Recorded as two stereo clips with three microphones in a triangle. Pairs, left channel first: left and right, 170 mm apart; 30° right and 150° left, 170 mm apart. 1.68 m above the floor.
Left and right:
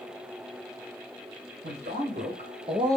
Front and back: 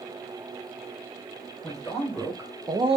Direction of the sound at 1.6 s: 120° right.